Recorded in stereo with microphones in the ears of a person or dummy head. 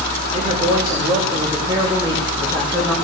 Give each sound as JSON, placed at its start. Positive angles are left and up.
{"t": 0.3, "sound": "a man speaking", "side_deg": -35, "distance_m": 2.5}